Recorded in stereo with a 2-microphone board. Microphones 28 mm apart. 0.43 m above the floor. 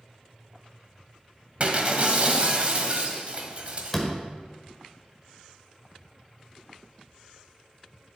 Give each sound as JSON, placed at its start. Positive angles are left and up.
{"t": 1.6, "sound": "breaking glass", "side_deg": -45, "distance_m": 1.3}
{"t": 3.9, "sound": "a door slam", "side_deg": 5, "distance_m": 1.2}